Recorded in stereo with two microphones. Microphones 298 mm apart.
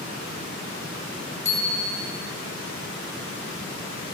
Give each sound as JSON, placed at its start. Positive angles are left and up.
{"t": 1.4, "sound": "a bicycle bell", "side_deg": 45, "distance_m": 3.0}